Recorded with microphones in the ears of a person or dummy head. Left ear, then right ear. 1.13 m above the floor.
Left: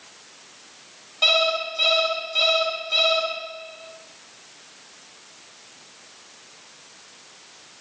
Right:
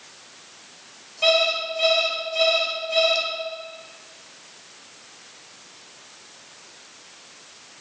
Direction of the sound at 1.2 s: 40° left (ahead or behind).